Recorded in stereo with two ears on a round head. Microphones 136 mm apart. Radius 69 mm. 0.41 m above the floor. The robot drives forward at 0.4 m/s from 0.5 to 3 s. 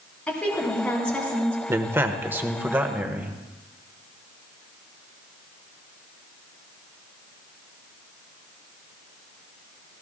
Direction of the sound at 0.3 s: 10° left (ahead or behind).